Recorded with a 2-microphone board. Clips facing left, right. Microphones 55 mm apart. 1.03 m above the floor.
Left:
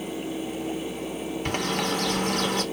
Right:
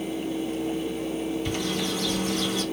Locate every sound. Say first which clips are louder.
1.4 s a bird: left 1 dB; 55° left (ahead or behind), 0.8 m